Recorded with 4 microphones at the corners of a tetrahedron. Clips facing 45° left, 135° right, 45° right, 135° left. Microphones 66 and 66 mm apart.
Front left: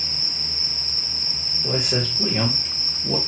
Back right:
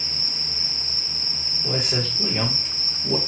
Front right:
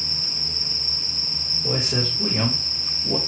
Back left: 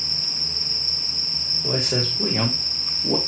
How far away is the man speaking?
About 3 m.